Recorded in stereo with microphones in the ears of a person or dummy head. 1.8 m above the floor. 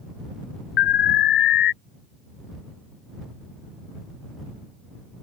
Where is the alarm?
50° left (ahead or behind).